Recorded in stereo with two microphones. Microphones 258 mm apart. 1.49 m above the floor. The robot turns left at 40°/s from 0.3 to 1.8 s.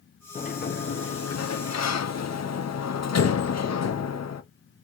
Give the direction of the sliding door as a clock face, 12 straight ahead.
7 o'clock.